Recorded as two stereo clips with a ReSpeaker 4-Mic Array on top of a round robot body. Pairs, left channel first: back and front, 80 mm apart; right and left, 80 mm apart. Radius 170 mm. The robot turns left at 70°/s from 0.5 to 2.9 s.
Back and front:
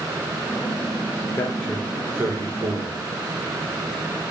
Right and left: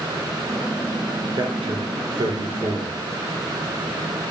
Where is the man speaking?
120° left, 4.5 m; by 3.0 s 15° left, 4.5 m.